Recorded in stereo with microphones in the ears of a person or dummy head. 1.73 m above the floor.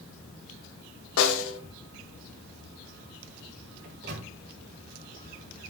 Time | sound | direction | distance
1.2 | a snare drum | 70° left (ahead or behind) | 1.2 m
3.8 | a microwave | 65° right (ahead or behind) | 3 m